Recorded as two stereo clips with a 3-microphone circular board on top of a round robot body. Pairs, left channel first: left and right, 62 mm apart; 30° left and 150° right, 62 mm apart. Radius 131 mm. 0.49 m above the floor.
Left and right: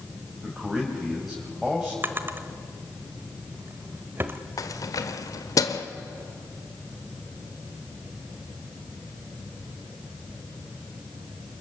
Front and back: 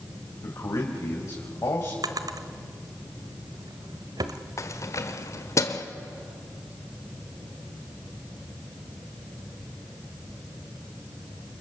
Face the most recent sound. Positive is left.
turn(degrees=65)